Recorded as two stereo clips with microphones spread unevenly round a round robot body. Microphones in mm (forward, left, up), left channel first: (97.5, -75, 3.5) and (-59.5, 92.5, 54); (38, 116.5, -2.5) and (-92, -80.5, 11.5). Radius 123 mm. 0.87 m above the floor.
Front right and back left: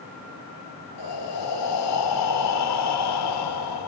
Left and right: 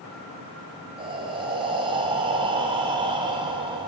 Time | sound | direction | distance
1.0 | breathing | 50° right | 5.5 m